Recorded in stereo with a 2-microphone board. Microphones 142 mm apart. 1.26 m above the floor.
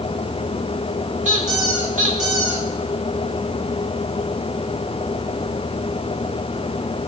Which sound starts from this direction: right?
A squeak, at 1.2 s.